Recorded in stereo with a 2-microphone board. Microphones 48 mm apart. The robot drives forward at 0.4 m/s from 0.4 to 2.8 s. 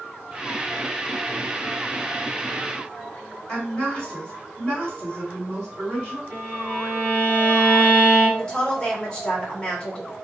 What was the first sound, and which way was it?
A woman speaking, 20° left (ahead or behind).